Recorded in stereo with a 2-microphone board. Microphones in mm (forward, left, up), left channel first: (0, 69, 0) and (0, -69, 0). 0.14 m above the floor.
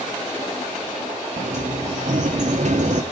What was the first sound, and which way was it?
A sliding door, 60° right (ahead or behind).